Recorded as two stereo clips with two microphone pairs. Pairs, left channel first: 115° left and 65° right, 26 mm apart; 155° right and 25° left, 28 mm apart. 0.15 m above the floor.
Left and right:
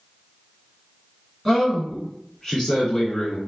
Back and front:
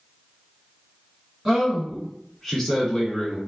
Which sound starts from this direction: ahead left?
A man speaking, at 1.4 s.